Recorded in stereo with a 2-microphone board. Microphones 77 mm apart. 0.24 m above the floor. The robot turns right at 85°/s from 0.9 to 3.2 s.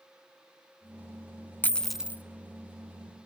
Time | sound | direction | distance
1.6 | a dropped coin | 155° left | 0.5 m